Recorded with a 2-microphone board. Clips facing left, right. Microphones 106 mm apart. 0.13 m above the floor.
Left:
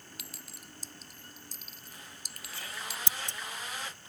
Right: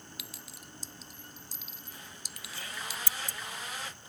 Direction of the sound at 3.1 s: 25° left (ahead or behind).